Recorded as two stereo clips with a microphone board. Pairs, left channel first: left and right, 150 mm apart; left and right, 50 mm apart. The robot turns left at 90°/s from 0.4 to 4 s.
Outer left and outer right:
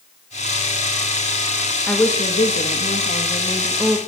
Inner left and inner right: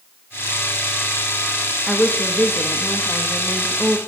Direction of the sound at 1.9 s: 175° left.